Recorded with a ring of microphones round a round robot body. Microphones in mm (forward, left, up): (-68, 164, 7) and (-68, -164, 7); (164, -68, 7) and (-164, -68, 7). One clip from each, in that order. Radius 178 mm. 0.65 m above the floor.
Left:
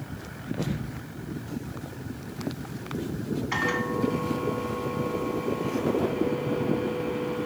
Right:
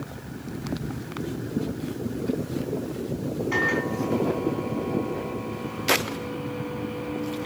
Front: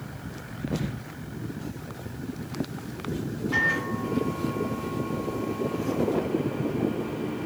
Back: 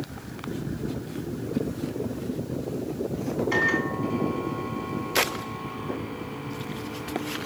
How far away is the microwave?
About 4 m.